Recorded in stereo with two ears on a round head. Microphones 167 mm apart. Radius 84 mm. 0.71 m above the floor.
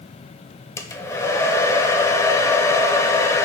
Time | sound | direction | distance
0.8 | a hair dryer | 15° left (ahead or behind) | 0.7 m